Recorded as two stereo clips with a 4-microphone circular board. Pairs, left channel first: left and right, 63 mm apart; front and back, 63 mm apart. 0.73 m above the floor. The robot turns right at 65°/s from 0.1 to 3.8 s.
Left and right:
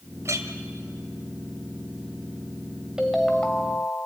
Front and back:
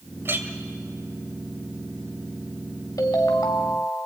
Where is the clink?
130° right, 1.9 m; by 0.5 s 115° right, 1.9 m.